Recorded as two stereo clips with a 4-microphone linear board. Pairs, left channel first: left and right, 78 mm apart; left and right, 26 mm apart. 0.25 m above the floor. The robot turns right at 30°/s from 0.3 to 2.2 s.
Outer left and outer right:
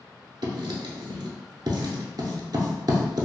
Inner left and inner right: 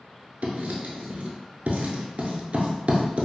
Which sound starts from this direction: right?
Writing, at 0.4 s.